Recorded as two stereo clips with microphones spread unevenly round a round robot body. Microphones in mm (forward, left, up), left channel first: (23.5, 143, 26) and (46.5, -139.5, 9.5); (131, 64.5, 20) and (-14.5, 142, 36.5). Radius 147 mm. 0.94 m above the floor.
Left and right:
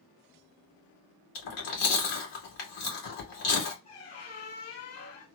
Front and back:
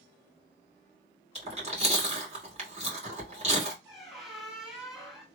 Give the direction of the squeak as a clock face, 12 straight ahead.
10 o'clock.